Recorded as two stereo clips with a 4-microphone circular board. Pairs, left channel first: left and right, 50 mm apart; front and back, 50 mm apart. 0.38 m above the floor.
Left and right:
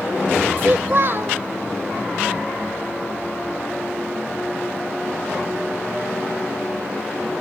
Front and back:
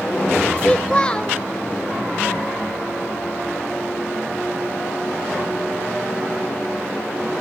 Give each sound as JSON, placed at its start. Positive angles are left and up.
{"t": 0.6, "sound": "a child speaking", "azimuth_deg": -65, "distance_m": 0.8}